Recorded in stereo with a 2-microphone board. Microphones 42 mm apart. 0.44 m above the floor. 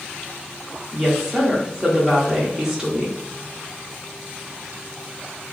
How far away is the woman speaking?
About 0.7 m.